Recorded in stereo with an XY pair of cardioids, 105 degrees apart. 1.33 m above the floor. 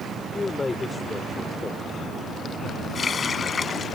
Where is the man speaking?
25° left.